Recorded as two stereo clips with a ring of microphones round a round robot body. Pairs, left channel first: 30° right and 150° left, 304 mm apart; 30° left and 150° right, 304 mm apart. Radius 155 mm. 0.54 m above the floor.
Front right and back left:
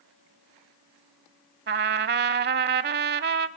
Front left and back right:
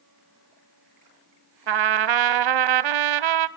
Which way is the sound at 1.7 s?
155° right.